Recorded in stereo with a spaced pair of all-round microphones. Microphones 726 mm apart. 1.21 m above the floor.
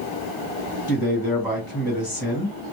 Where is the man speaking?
20° left (ahead or behind), 1.4 m.